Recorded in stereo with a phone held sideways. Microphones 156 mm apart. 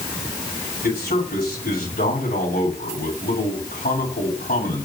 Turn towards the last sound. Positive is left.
turn(degrees=80)